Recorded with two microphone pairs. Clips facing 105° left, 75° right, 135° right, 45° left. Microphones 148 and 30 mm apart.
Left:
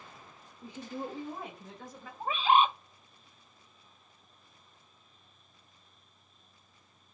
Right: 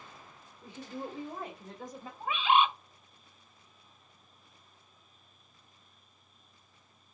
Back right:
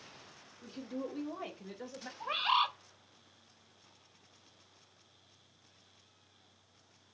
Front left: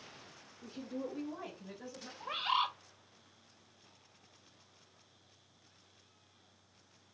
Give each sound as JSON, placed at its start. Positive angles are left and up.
{"t": 0.6, "sound": "a woman speaking", "azimuth_deg": 155, "distance_m": 1.9}
{"t": 2.2, "sound": "a bird", "azimuth_deg": 155, "distance_m": 0.5}